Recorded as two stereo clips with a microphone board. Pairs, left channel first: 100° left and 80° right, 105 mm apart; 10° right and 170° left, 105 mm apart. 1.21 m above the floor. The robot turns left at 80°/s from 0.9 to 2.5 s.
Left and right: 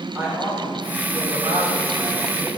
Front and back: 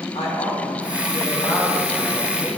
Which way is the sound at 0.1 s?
15° right.